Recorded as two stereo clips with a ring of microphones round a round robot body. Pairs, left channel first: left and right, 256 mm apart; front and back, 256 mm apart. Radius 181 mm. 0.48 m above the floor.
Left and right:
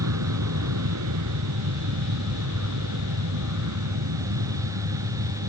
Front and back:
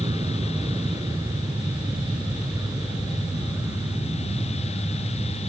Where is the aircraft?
100° right; by 5.5 s 95° right.